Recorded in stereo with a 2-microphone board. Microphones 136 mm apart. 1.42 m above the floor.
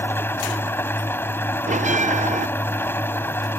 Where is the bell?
60° right (ahead or behind).